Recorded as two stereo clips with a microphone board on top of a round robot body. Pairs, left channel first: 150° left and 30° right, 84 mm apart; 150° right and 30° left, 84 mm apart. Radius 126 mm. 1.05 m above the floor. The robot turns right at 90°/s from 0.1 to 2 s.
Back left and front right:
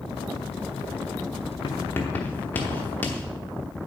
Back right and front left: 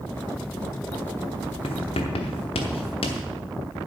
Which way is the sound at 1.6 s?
170° right.